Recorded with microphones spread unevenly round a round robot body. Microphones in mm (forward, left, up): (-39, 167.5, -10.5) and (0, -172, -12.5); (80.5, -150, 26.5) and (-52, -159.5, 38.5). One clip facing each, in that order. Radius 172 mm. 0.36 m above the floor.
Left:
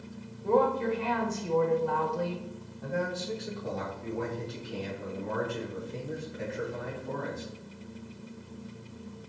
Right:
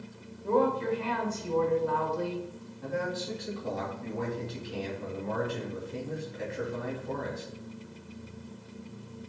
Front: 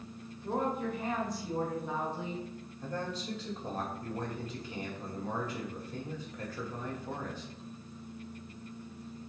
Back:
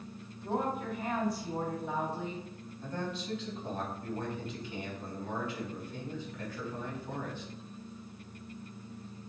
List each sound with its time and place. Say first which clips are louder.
0.4 s a woman speaking: left 1 dB, front 1 dB; 90° left, 0.9 m
2.8 s a man speaking: even, even; 20° right, 1.8 m